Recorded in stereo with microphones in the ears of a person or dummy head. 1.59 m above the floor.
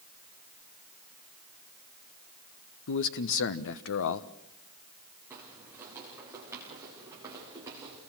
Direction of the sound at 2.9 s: 70° left (ahead or behind).